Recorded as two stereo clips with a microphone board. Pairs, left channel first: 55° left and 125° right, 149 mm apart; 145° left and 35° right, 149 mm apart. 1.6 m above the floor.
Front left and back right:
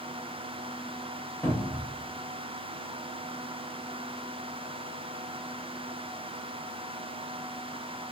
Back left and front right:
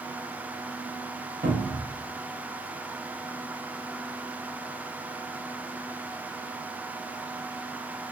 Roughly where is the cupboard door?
Ahead.